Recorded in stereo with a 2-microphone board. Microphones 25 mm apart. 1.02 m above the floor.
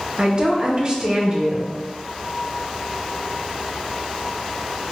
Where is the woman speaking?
30° right (ahead or behind), 0.8 m.